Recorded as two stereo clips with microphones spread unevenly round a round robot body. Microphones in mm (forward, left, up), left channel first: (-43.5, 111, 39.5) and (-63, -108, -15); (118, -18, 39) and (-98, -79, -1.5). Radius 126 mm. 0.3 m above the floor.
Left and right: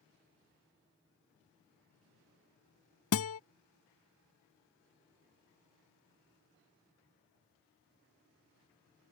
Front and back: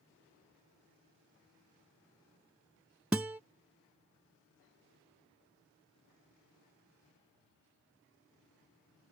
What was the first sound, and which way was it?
A guitar, 110° left.